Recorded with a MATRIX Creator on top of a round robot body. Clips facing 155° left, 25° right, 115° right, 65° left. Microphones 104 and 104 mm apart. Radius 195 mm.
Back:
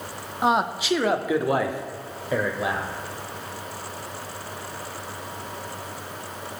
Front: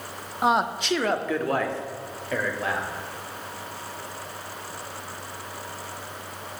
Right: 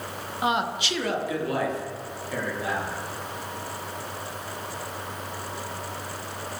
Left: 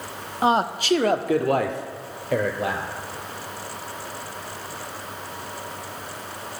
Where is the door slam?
I don't hear a door slam.